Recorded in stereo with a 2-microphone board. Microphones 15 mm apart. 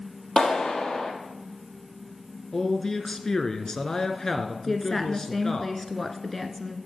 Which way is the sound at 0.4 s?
65° left (ahead or behind).